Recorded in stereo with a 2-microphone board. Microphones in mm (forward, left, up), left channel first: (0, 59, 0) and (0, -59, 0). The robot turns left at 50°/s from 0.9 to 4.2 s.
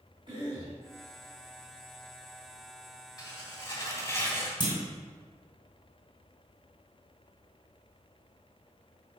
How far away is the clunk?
About 2.0 m.